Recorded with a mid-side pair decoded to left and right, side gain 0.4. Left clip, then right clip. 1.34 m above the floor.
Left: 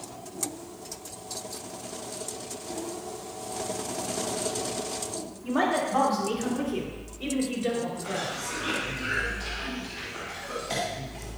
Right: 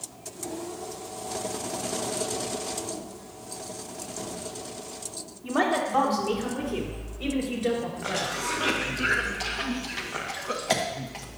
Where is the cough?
70° right, 1.5 m.